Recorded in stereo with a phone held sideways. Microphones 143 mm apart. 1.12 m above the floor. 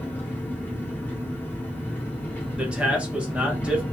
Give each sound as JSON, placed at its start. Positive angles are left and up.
{"t": 0.0, "sound": "an engine running", "side_deg": 10, "distance_m": 1.1}
{"t": 2.6, "sound": "a man speaking", "side_deg": -10, "distance_m": 0.7}